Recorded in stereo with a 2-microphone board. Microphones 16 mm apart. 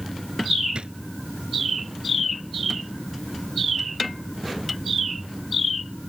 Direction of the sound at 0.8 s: 75° right (ahead or behind).